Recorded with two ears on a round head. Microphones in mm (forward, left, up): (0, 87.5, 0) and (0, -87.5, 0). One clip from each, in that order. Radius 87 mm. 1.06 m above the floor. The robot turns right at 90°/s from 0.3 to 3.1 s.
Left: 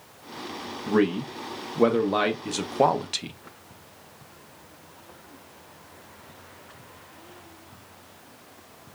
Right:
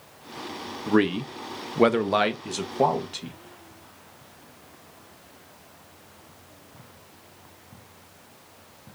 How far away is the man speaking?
About 0.6 m.